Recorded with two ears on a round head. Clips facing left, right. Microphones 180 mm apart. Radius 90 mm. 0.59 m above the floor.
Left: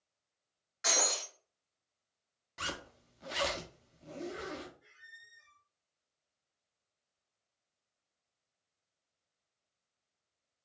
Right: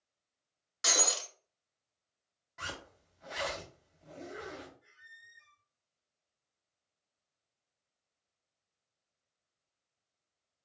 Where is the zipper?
40° left (ahead or behind), 0.7 m.